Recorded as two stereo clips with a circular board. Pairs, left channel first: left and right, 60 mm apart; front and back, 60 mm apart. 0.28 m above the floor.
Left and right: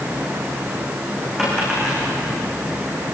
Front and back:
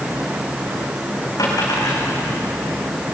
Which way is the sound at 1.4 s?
5° right.